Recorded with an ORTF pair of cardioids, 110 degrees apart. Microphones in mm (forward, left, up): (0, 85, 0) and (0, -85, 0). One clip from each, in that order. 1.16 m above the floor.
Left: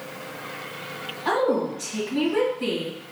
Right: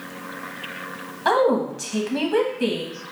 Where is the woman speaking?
60° right, 1.5 m.